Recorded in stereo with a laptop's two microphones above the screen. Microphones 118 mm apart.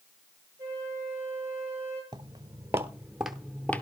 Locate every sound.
0.6 s a flute: 20° right (ahead or behind), 8.5 m
2.1 s footsteps: 40° right (ahead or behind), 1.1 m; by 3.8 s 15° left (ahead or behind), 0.9 m